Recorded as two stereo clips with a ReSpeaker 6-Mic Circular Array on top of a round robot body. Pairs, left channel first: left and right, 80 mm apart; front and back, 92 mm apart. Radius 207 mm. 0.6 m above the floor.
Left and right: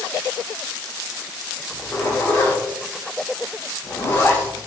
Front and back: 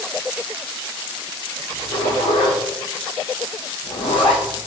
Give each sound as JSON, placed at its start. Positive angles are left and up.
{"t": 1.7, "sound": "a zipper", "azimuth_deg": 25, "distance_m": 0.6}